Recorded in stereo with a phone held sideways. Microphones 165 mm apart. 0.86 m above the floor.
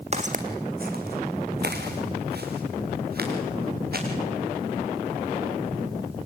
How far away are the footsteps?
About 2 m.